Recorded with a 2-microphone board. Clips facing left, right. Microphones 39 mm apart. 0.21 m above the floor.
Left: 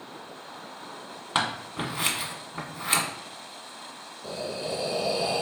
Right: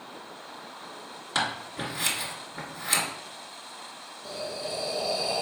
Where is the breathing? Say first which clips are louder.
Left 2 dB; 45° left (ahead or behind), 0.5 m.